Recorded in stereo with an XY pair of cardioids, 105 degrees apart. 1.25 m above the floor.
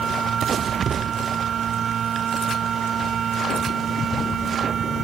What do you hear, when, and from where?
0.0 s a machine running: 55° right